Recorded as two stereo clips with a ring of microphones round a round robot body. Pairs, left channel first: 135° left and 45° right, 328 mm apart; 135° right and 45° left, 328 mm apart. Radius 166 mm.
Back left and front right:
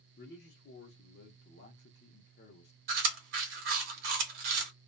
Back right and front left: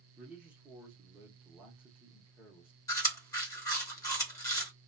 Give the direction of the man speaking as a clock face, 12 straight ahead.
8 o'clock.